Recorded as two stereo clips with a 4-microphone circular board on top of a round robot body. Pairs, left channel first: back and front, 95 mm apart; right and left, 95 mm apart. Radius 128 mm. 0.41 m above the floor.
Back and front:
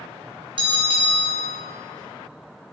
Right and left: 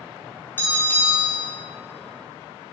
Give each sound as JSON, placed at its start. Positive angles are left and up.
{"t": 0.6, "sound": "a bell", "azimuth_deg": -25, "distance_m": 3.0}